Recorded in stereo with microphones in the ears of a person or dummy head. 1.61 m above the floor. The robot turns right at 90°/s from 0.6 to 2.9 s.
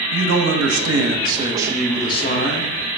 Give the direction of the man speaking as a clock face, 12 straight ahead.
3 o'clock.